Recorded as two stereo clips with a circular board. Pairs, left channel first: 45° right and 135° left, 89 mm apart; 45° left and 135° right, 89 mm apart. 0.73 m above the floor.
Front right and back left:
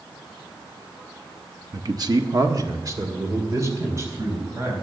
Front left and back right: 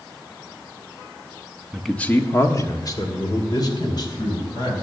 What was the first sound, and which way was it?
A man speaking, 145° left.